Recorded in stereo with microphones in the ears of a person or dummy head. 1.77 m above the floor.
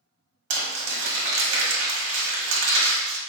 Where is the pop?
I don't hear a pop.